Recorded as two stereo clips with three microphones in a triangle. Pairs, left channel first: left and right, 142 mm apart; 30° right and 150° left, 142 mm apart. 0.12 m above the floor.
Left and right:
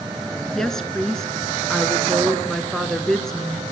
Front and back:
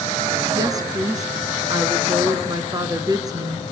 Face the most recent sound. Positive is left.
turn(degrees=170)